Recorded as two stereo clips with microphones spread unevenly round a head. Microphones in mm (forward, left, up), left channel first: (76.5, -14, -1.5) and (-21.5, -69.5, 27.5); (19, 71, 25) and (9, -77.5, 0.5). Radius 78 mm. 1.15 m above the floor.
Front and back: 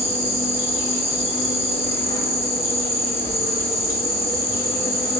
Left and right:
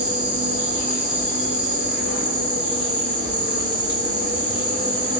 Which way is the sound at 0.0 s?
35° right.